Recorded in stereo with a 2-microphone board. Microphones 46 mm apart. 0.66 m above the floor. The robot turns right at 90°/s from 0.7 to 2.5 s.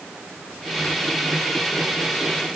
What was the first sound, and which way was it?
Only background noise.